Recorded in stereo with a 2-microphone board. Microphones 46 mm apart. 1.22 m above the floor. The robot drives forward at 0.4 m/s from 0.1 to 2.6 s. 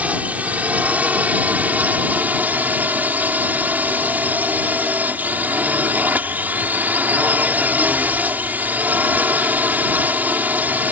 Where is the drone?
35° right (ahead or behind); by 10.9 s 40° right (ahead or behind).